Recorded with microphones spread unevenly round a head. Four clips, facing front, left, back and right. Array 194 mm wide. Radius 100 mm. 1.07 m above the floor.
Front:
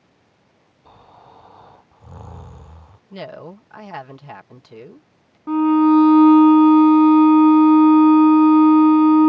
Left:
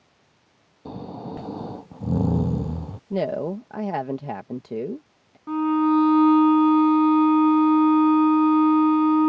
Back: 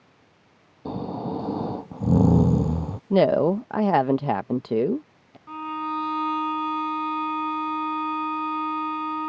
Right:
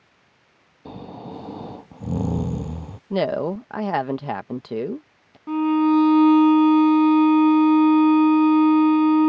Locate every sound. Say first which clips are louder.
0.8 s snoring: left 2 dB, back 17 dB; 175° left
3.1 s a woman speaking: right 3 dB, back 16 dB; 170° right
5.5 s a violin: right 2 dB, front 16 dB; 10° right